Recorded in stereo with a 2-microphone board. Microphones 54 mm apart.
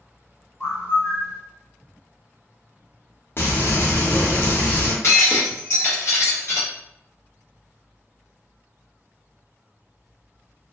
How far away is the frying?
About 0.7 m.